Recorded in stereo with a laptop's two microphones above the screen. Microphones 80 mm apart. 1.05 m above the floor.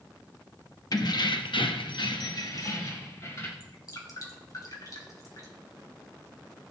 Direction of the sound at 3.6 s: 50° left (ahead or behind).